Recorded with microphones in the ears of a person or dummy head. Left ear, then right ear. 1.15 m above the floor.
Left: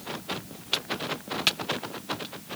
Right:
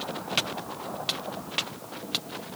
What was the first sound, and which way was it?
Only background noise.